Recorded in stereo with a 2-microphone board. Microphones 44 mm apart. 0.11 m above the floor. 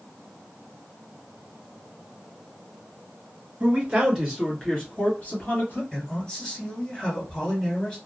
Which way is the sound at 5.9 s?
15° left (ahead or behind).